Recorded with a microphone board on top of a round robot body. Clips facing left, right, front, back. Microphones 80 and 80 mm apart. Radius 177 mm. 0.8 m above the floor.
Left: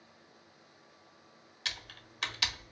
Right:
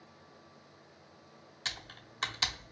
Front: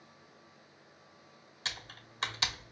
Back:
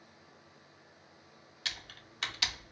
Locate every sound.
1.6 s typing on a keyboard: 45° right, 1.2 m